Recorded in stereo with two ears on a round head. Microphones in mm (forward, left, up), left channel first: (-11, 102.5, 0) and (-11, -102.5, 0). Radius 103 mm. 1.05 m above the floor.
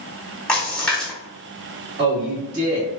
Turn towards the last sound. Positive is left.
turn(degrees=-45)  # may be behind; listen again after turning